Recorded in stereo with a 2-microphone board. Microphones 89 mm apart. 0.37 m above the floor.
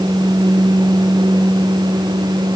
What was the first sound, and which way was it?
Only background noise.